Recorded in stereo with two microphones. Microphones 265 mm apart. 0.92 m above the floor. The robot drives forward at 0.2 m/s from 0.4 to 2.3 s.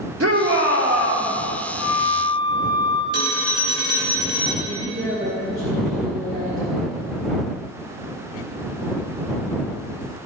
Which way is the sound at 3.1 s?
65° right (ahead or behind).